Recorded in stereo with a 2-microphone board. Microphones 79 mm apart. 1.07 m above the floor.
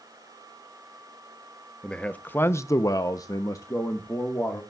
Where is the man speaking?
10° left (ahead or behind), 0.9 m; by 4.6 s 35° left (ahead or behind), 1.5 m.